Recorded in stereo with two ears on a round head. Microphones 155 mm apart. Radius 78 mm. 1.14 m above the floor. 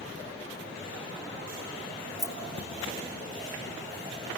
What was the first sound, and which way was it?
Keys jangling, centre (ahead or behind).